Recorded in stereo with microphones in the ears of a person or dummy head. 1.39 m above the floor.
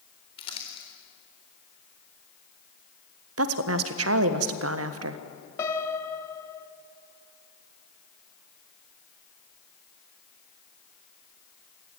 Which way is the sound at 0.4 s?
30° left (ahead or behind).